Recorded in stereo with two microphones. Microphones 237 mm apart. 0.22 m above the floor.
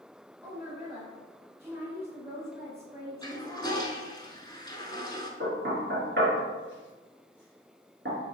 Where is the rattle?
No rattle in this recording.